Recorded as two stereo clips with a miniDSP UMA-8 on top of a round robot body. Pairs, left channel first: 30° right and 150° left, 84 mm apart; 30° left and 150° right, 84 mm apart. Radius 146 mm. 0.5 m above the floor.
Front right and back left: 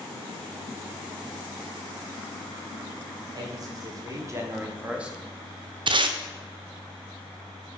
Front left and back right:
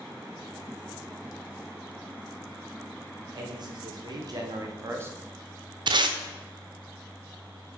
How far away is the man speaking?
About 3 m.